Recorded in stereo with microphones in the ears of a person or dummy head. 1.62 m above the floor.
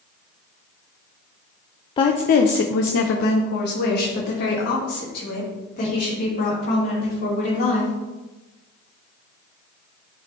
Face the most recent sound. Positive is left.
turn(degrees=40)  # may be behind; listen again after turning